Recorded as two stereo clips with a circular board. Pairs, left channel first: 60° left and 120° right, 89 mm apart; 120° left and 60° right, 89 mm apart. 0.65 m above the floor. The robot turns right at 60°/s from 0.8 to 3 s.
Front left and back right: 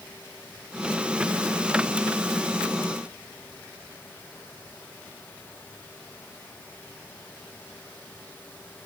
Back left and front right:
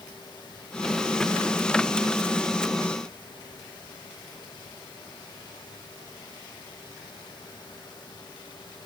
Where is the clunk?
No clunk in this recording.